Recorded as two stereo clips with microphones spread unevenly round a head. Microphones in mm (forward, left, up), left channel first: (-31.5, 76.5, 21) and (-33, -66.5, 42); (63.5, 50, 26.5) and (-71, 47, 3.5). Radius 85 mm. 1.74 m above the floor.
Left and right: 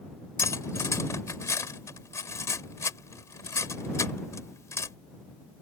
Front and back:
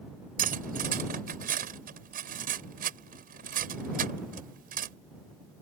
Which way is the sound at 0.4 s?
160° left.